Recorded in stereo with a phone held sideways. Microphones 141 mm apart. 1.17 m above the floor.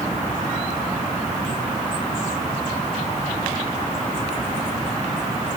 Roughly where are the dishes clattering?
No dishes clattering in this recording.